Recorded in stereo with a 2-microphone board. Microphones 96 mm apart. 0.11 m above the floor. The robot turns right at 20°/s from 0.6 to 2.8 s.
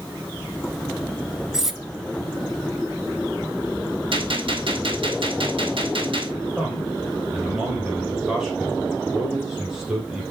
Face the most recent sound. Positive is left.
turn(degrees=-10)  # may be behind; listen again after turning